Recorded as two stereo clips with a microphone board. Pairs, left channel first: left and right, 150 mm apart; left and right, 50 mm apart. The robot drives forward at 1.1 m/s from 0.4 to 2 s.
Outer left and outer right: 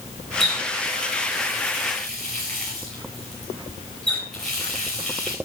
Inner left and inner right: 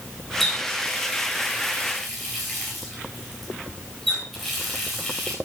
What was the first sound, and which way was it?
A running tap, 5° left (ahead or behind).